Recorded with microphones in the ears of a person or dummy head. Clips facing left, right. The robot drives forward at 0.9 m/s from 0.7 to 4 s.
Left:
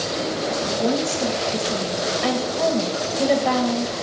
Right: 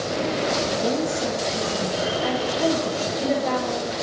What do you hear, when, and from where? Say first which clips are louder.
0.6 s a woman speaking: left 1 dB; 55° left (ahead or behind), 2.5 m